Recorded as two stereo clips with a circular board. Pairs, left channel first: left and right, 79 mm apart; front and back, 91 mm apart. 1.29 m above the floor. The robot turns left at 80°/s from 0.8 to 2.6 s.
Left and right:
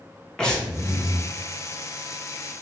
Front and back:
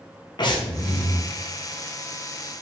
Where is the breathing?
10° left, 0.7 m; by 1.2 s 20° right, 0.7 m.